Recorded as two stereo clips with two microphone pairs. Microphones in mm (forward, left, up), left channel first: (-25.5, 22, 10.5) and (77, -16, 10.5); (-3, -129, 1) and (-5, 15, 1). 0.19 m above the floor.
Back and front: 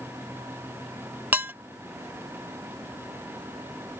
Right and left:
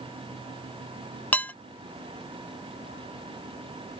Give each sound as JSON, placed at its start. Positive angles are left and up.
{"t": 1.3, "sound": "dishes clattering", "azimuth_deg": -50}